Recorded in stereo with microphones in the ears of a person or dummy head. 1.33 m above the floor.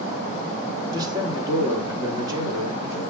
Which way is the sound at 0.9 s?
25° right (ahead or behind).